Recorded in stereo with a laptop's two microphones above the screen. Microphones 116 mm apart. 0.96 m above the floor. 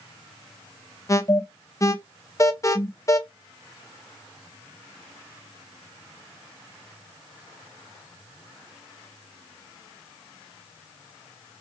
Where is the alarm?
30° left (ahead or behind), 0.5 m.